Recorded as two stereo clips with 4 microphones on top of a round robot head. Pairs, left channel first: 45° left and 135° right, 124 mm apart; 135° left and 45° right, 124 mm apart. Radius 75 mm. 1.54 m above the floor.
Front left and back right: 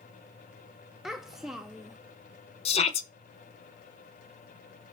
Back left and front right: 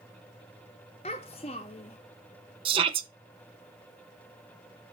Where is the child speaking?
140° left, 0.5 m.